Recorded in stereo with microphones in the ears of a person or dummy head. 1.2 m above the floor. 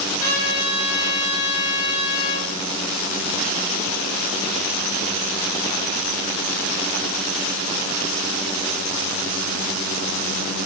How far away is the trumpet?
About 1.6 m.